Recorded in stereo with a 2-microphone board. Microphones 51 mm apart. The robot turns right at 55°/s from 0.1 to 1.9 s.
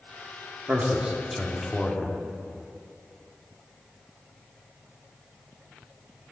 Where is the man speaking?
50° right, 1.4 m; by 2.2 s 20° left, 1.4 m.